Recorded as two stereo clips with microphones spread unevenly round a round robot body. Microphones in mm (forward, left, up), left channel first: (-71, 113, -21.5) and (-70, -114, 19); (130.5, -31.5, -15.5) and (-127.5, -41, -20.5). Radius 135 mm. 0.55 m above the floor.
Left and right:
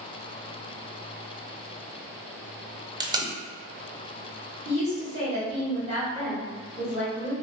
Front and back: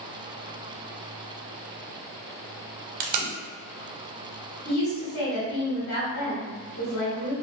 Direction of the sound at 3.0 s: 165° right.